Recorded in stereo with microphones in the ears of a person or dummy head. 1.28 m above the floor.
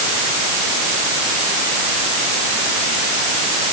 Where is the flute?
No flute in this recording.